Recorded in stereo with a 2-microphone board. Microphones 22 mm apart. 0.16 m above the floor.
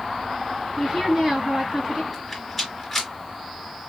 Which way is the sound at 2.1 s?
Centre (ahead or behind).